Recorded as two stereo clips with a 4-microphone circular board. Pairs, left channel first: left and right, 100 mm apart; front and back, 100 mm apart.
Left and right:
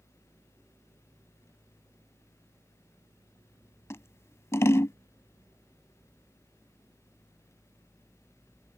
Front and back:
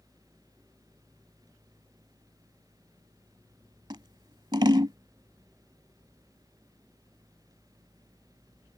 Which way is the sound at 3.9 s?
145° left.